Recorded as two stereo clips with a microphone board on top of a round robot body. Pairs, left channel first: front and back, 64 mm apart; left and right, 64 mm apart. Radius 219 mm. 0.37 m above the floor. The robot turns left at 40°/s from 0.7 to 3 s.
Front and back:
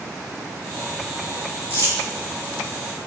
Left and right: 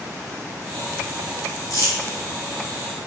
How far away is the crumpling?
About 1.7 m.